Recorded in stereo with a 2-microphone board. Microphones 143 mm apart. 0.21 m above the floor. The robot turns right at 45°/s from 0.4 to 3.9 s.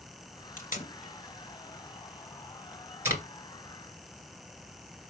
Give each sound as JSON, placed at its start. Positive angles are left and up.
{"t": 0.6, "sound": "tape being pulled", "side_deg": 70, "distance_m": 2.5}